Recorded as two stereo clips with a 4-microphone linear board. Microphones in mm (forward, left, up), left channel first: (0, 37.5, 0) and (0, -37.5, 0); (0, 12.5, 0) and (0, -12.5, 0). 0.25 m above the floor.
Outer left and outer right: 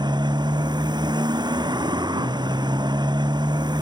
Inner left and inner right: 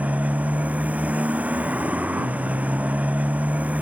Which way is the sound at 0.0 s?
65° right (ahead or behind).